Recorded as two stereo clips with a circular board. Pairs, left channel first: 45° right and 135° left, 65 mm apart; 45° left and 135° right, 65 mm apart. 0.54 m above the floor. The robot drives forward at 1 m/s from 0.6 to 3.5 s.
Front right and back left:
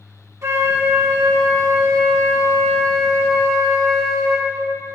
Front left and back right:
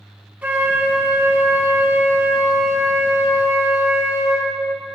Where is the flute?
165° left, 1.3 m; by 4.5 s 175° left, 4 m.